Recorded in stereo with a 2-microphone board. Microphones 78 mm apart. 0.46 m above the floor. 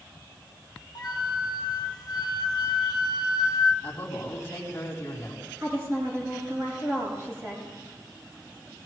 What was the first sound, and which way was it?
A flute, 60° left (ahead or behind).